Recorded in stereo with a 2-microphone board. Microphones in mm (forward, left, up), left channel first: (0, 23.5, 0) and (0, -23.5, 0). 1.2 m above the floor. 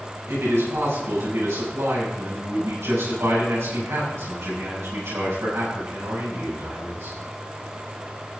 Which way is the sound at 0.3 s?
80° right.